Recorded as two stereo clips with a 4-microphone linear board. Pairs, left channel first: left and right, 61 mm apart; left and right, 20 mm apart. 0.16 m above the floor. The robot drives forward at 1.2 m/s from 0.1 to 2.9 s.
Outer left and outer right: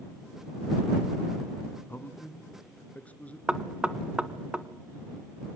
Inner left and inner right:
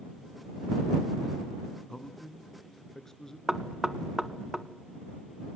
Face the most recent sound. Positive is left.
turn(degrees=-15)  # may be behind; listen again after turning